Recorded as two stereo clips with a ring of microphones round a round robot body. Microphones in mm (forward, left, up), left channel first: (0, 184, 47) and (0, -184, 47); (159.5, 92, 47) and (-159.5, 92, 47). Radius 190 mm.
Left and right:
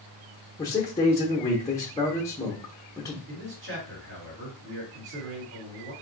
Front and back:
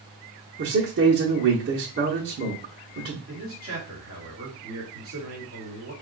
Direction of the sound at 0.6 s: 165° left.